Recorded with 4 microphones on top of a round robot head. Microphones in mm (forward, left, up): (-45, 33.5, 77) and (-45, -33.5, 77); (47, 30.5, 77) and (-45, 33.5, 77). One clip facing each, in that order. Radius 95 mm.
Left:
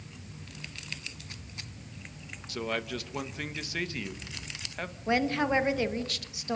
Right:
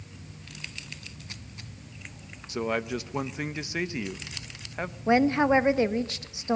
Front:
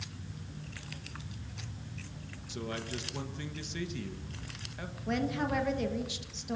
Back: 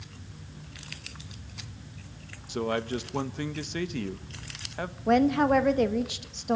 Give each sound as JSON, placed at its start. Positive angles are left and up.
{"t": 2.5, "sound": "a man speaking", "azimuth_deg": -155, "distance_m": 1.2}
{"t": 5.1, "sound": "a woman speaking", "azimuth_deg": -150, "distance_m": 1.5}